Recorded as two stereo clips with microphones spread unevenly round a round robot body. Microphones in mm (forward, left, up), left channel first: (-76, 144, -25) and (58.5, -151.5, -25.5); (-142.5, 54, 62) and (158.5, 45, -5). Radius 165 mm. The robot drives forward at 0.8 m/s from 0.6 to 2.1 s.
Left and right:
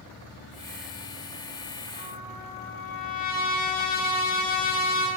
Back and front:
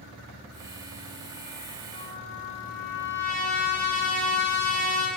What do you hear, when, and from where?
1.9 s a trumpet: straight behind, 3.5 m